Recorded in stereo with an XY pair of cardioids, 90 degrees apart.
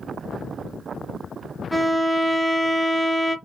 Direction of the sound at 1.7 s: Straight ahead.